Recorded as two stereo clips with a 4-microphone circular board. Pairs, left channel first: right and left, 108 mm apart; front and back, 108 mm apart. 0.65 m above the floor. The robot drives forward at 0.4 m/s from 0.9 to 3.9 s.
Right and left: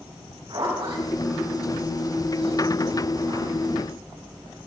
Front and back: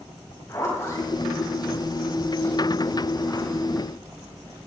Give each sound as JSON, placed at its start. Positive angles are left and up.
{"t": 0.5, "sound": "a zipper", "azimuth_deg": 60, "distance_m": 5.0}